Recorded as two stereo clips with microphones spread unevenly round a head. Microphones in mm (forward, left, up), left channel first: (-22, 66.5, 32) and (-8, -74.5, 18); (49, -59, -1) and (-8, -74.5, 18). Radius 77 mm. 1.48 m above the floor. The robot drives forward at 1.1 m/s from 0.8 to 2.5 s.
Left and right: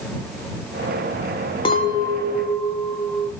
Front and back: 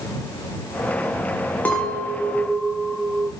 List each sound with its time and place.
1.6 s a clink: 100° left, 0.5 m; by 3.3 s 165° left, 1.1 m